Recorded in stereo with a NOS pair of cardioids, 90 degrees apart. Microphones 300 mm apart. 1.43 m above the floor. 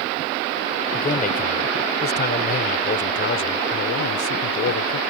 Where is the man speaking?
25° left; by 5.0 s 55° left.